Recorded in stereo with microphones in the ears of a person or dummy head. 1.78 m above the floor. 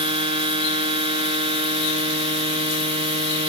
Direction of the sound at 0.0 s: 25° right (ahead or behind).